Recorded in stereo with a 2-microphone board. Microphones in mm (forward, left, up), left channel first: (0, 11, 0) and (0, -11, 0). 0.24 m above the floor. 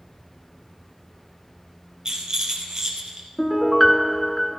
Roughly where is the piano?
Centre.